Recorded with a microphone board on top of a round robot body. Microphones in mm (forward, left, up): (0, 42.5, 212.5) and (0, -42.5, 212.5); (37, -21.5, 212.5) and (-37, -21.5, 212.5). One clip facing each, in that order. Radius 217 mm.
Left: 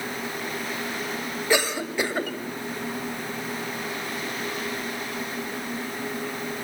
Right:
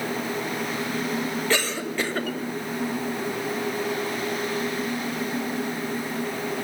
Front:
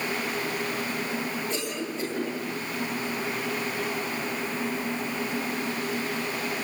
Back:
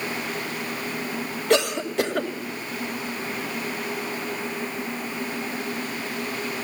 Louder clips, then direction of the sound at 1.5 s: Left 6 dB, back 10 dB; 165° left.